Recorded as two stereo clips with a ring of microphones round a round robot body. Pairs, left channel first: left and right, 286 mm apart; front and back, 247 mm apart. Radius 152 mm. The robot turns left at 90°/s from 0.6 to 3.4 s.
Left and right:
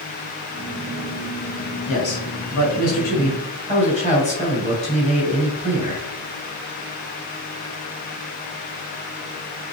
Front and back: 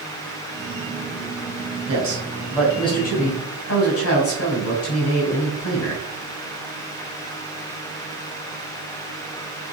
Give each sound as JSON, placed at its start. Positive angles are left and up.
{"t": 1.9, "sound": "a man speaking", "azimuth_deg": 160, "distance_m": 3.5}